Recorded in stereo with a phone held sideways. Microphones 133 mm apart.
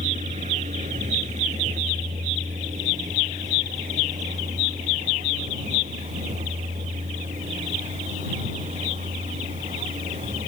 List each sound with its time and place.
0.0 s a vehicle: 65° right (ahead or behind); by 10.5 s 60° right (ahead or behind)